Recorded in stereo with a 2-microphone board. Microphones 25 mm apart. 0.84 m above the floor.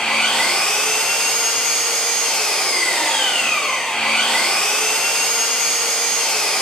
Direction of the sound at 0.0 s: 35° left (ahead or behind).